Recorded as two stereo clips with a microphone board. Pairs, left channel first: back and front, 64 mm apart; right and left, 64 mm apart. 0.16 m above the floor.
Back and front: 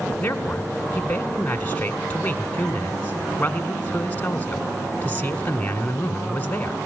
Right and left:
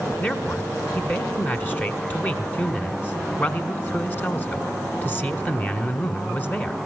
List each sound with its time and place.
0.2 s a man speaking: 130° right, 1.6 m